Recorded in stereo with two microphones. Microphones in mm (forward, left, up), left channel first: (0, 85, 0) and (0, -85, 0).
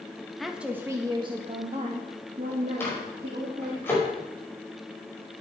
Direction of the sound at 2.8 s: 15° left (ahead or behind).